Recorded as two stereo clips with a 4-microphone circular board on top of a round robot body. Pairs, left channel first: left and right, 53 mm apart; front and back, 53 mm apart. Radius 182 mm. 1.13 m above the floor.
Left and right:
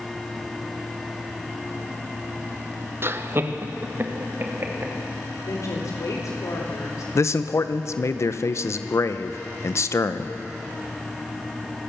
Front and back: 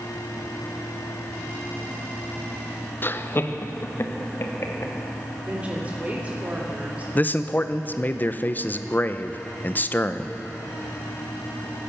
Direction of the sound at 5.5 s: 115° left.